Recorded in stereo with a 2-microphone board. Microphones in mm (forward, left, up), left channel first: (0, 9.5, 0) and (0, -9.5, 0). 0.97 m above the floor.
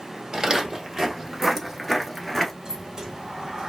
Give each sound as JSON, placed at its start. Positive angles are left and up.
{"t": 0.3, "sound": "footsteps", "side_deg": -40, "distance_m": 1.3}
{"t": 2.6, "sound": "a sliding door", "side_deg": -45, "distance_m": 1.3}